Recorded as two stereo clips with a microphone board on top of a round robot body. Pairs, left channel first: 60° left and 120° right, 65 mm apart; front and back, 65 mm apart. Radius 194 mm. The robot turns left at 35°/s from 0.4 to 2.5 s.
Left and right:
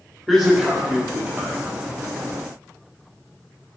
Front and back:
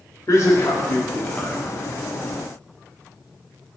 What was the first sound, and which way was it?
A man speaking, 35° right.